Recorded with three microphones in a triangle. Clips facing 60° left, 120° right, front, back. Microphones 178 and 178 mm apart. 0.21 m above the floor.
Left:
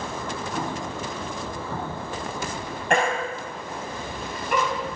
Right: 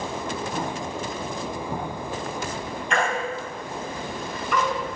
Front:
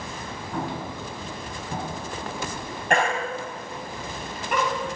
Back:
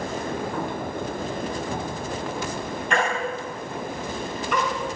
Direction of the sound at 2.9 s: 30° left.